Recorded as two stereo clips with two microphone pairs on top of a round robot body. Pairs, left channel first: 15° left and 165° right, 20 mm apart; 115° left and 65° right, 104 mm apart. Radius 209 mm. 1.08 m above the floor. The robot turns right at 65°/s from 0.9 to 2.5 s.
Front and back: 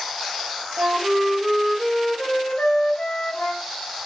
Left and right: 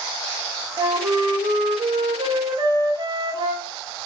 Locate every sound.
0.8 s a flute: 120° right, 1.6 m; by 3.7 s 15° right, 1.6 m